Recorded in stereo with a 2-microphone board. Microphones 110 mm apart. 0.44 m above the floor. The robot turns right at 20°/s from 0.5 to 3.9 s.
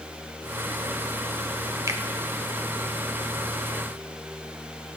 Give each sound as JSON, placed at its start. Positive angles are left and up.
{"t": 1.9, "sound": "a finger snap", "side_deg": -30, "distance_m": 1.0}